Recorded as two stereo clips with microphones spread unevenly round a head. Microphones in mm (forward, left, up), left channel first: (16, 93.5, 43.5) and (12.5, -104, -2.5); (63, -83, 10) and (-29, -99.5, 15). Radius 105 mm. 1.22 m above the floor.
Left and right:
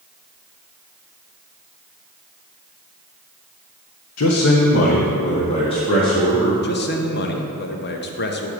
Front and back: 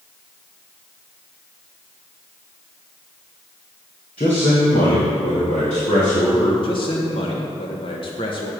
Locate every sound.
4.2 s a man speaking: 75° left, 0.8 m; by 6.5 s 15° left, 2.5 m
6.6 s a man speaking: 45° left, 1.1 m